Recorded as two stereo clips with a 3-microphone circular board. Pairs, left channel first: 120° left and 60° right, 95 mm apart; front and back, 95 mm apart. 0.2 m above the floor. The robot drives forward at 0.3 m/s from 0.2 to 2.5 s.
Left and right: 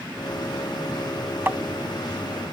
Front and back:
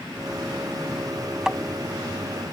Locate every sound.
1.5 s tapping: 100° right; by 1.6 s 105° right